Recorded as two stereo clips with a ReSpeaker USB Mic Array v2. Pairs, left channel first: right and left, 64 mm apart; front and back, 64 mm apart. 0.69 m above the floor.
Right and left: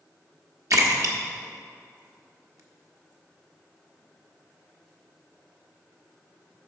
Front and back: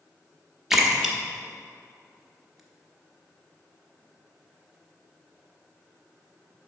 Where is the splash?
95° left, 1.1 m.